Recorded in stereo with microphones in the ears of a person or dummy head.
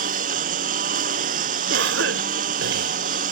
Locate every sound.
0.0 s a lawn mower: 50° right (ahead or behind)
1.7 s a cough: 65° right (ahead or behind)